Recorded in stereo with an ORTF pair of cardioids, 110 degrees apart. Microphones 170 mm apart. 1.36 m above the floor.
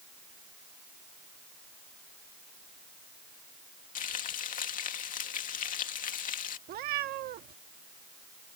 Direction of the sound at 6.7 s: 70° right.